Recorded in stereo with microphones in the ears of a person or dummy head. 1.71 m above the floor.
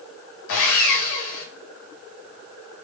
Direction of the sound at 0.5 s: 65° left (ahead or behind).